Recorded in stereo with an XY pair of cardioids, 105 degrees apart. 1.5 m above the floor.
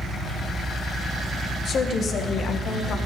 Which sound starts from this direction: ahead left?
A woman speaking, at 1.6 s.